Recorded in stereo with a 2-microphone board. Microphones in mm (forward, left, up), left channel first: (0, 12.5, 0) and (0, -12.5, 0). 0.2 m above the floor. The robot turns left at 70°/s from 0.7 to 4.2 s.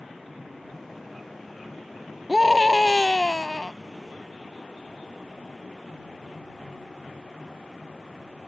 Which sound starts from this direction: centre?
A scream, at 2.3 s.